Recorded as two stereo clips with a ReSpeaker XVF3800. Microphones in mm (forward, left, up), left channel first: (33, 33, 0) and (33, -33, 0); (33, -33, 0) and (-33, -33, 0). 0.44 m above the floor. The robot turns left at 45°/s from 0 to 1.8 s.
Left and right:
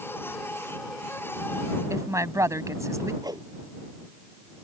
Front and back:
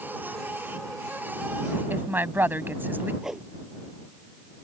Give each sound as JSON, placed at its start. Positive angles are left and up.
{"t": 1.9, "sound": "a woman speaking", "azimuth_deg": -120}
{"t": 3.2, "sound": "a whoosh", "azimuth_deg": -100}